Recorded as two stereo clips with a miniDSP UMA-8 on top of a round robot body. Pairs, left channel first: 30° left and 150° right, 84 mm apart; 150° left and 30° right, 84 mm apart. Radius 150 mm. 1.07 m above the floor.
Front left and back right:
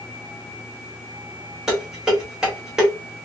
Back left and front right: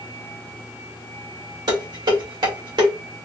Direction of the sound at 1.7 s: 70° right.